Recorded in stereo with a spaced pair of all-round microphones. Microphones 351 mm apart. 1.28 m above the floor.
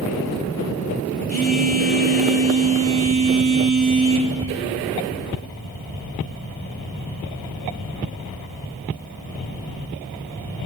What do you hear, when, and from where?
1.3 s a phone buzzing: 25° right (ahead or behind), 2 m